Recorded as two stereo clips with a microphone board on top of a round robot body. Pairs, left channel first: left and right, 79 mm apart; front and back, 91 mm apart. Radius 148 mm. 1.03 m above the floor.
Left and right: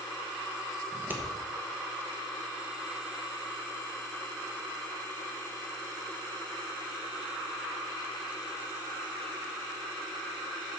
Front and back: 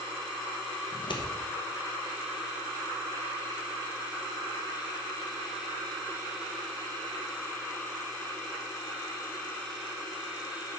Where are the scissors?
25° right, 1.2 m.